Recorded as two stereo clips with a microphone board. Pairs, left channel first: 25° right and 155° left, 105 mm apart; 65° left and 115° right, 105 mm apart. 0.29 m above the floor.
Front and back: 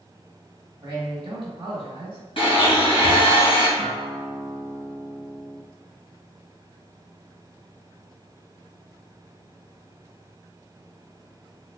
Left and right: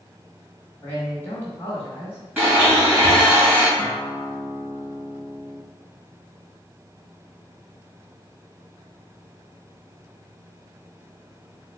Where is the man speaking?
135° left, 1.3 m.